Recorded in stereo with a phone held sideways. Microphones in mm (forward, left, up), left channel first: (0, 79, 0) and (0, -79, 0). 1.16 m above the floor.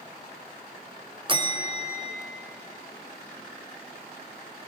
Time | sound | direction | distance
1.3 | a bell | 30° right (ahead or behind) | 1.0 m